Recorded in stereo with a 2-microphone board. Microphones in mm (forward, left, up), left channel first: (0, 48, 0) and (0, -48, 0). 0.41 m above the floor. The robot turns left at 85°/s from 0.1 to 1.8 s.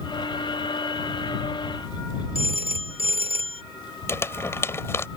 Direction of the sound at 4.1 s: 30° left (ahead or behind).